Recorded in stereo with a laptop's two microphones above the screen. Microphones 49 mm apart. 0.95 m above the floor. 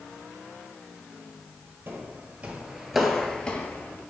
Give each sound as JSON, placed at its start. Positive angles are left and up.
{"t": 1.9, "sound": "footsteps", "side_deg": -45, "distance_m": 1.3}